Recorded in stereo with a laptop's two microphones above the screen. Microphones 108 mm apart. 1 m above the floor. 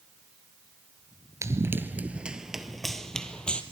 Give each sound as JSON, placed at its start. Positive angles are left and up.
{"t": 1.4, "sound": "running footsteps", "side_deg": -30, "distance_m": 1.1}